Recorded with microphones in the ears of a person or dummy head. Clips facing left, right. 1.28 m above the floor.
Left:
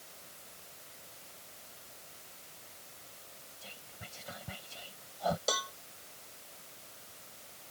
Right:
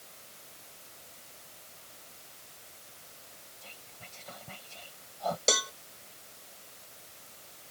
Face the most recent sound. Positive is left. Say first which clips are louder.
# right 5 dB
turn(degrees=-35)  # may be behind; listen again after turning